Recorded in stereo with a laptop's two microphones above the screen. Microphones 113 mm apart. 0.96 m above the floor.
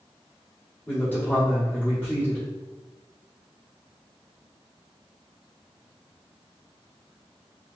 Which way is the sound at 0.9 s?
15° left (ahead or behind).